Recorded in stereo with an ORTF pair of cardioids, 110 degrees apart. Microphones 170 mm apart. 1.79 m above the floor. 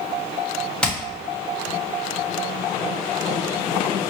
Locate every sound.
0.8 s hammering: 5° left, 1.5 m